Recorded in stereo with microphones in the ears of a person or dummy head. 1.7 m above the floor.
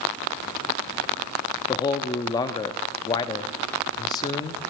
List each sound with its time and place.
1.7 s a man speaking: 25° left (ahead or behind), 0.6 m